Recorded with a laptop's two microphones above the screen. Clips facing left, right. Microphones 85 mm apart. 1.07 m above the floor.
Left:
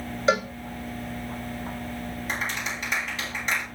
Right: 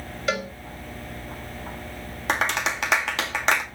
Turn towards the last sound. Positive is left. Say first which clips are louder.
# right 9 dB
turn(degrees=-65)  # may be behind; listen again after turning